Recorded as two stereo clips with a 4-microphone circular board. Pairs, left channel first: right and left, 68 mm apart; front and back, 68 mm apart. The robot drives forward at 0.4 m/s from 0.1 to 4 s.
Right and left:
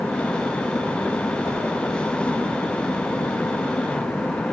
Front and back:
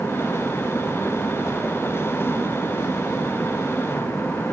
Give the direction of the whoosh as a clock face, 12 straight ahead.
4 o'clock.